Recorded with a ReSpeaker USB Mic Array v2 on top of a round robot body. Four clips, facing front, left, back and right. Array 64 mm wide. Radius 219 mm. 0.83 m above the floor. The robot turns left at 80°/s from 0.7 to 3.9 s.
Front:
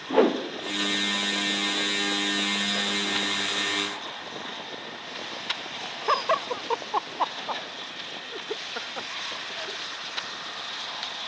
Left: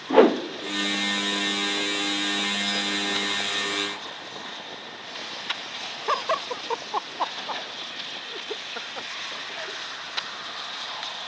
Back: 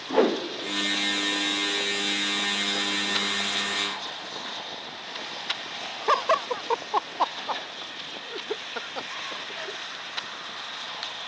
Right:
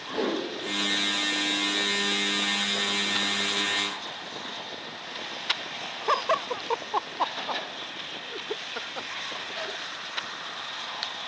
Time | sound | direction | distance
0.1 | a whoosh | 90° left | 1.6 m